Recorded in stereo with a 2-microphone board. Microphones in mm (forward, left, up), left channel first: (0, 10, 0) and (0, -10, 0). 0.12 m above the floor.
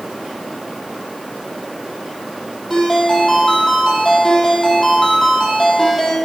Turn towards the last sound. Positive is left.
turn(degrees=0)  # may be behind; listen again after turning